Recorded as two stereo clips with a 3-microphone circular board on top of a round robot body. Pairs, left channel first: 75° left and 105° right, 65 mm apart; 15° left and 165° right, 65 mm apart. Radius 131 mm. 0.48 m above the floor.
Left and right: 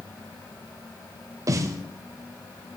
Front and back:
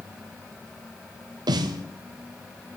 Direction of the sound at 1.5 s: 150° right.